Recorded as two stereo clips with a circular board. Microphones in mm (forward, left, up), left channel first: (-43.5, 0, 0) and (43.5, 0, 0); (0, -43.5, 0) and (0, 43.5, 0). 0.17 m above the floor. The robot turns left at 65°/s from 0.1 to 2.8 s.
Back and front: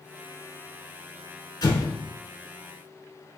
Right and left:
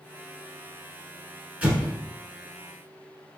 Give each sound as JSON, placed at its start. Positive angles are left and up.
{"t": 1.6, "sound": "an explosion", "azimuth_deg": 160, "distance_m": 1.0}